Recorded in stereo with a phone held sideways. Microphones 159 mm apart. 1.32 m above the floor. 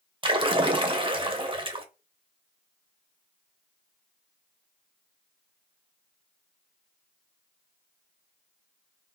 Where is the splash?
35° right (ahead or behind), 0.5 m.